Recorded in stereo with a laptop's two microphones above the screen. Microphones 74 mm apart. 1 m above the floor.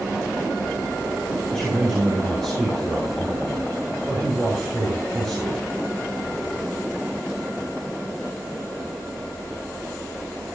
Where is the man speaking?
10° left (ahead or behind), 5 m.